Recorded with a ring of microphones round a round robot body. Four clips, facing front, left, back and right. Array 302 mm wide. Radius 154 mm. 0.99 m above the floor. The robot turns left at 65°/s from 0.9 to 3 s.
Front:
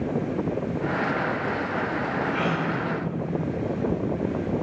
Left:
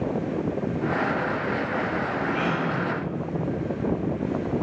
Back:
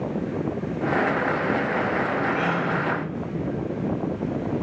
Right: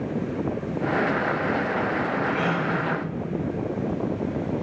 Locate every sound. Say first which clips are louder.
2.3 s a gasp: right 1 dB, back 2 dB; 10° right, 6 m; by 2.7 s 35° right, 6 m